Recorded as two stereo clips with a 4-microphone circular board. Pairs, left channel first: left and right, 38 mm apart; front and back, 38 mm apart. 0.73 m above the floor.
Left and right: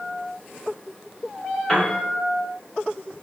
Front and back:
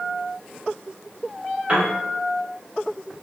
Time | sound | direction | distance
1.7 | a piano | 165° left | 1.3 m